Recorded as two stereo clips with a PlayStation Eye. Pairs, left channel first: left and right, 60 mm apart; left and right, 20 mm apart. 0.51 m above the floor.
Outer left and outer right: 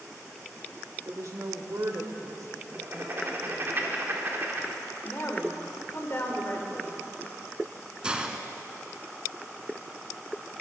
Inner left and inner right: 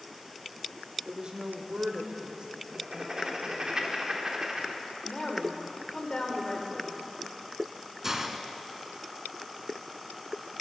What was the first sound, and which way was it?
A woman speaking, 50° right (ahead or behind).